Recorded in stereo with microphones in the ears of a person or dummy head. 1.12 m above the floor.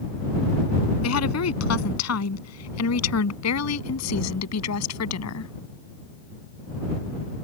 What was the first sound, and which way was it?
A woman speaking, 85° left.